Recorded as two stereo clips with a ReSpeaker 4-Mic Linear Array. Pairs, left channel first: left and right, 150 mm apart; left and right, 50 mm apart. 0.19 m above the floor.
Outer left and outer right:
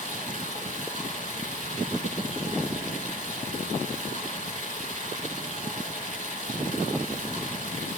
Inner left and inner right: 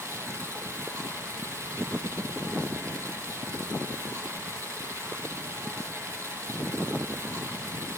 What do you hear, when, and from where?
0.0 s running water: 50° right (ahead or behind), 2 m